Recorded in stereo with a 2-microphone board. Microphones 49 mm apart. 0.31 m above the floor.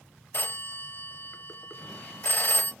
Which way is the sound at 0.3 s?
40° left (ahead or behind).